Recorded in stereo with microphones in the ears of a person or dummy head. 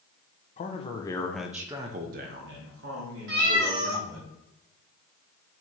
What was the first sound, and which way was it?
A man speaking, 35° left (ahead or behind).